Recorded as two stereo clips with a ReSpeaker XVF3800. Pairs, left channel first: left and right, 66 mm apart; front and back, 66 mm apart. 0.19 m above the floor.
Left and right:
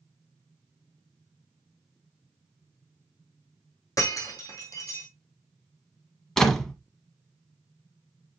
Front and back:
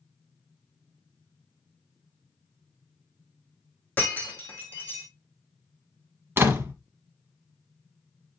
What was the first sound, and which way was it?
Breaking glass, 65° left.